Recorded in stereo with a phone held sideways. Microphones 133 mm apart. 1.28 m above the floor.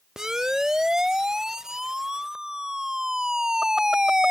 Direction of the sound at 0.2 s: 5° right (ahead or behind).